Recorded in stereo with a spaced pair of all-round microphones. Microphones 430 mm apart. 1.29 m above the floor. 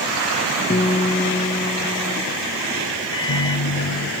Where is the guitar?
20° left (ahead or behind), 0.7 m.